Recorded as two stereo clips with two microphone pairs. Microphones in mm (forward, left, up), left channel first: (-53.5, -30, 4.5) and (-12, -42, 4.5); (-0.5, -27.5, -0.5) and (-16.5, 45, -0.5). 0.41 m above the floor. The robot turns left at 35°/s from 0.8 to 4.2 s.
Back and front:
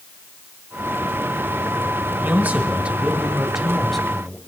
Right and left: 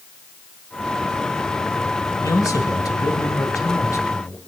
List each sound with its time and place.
2.2 s a man speaking: 50° right, 1.8 m; by 4.4 s 120° right, 1.8 m